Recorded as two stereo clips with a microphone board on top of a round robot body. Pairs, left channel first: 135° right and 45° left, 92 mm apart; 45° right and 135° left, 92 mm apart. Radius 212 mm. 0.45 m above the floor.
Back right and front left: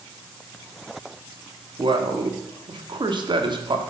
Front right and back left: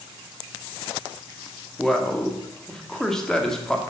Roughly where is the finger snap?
No finger snap in this recording.